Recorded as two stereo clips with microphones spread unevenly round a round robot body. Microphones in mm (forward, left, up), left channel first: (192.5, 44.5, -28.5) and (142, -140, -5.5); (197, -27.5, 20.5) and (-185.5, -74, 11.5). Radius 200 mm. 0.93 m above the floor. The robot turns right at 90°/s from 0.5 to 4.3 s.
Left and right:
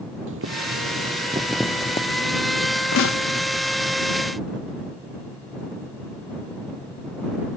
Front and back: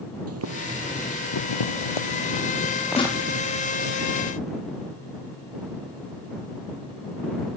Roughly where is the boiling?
Behind right.